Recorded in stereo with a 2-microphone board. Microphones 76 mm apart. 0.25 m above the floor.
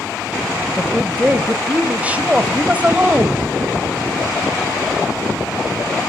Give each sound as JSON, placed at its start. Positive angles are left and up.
{"t": 0.8, "sound": "a woman speaking", "side_deg": -20, "distance_m": 1.4}